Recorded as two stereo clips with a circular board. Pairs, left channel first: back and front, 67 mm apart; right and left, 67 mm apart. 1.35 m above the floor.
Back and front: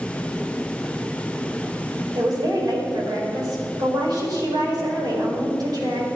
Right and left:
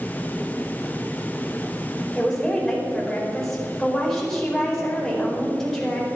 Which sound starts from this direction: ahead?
A woman speaking, at 2.1 s.